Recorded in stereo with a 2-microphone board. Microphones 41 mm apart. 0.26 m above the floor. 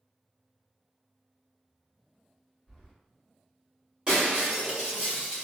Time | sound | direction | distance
2.7 | keys jangling | 10° left (ahead or behind) | 1.9 m
4.1 | breaking glass | 20° right (ahead or behind) | 1.6 m